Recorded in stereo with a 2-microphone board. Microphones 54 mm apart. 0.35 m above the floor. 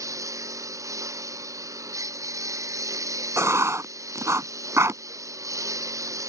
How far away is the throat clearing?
No throat clearing in this recording.